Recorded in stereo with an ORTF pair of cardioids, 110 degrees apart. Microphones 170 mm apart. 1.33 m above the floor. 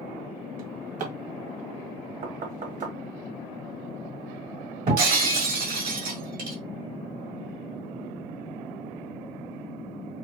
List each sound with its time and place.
0.6 s a drawer: 50° right, 1.5 m
2.2 s knocking: 45° right, 1.2 m
4.9 s breaking glass: 60° right, 2.0 m